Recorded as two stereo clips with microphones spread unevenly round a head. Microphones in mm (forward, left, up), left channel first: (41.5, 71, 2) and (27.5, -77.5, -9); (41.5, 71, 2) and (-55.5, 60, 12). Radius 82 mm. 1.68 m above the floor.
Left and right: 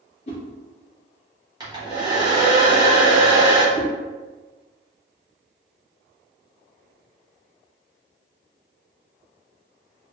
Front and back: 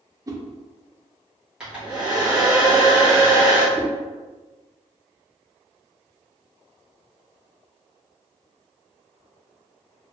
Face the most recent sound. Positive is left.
turn(degrees=-120)